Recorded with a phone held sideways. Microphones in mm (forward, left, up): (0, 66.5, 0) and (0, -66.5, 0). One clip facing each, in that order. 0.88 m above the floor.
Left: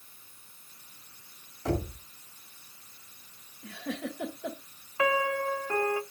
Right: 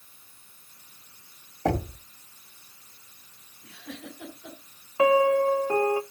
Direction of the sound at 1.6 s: 70° right (ahead or behind).